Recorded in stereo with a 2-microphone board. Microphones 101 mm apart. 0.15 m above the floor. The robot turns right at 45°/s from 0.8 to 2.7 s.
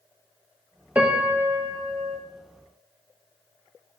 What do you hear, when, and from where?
0.9 s a piano: 165° right, 0.9 m; by 2.2 s 110° right, 0.9 m